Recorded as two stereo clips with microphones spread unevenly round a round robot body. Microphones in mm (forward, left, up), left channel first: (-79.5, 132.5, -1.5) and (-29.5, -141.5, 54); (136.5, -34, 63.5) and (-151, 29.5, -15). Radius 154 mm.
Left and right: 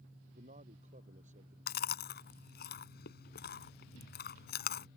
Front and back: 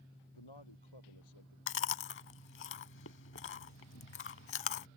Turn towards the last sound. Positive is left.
turn(degrees=35)